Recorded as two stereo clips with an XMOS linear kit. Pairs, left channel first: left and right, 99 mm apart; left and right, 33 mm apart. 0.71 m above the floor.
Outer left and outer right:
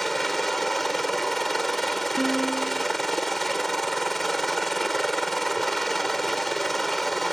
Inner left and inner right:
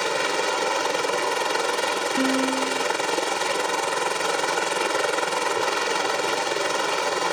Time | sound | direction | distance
0.0 | a helicopter | centre (ahead or behind) | ?
2.2 | a piano | 5° left (ahead or behind) | ?